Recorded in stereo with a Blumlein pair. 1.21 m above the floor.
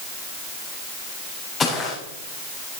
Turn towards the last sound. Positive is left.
turn(degrees=25)